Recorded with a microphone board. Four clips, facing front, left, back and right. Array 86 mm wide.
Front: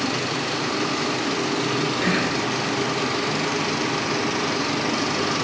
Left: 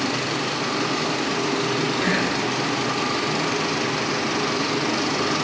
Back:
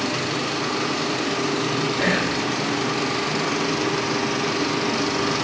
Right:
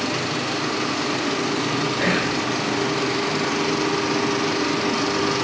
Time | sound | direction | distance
2.0 | whispering | 125° right | 3 m